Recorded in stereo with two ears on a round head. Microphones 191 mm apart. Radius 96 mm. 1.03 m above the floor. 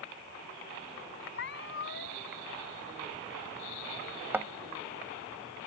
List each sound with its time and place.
1.3 s a cat meowing: 60° left (ahead or behind)
4.3 s a thud: 10° right (ahead or behind)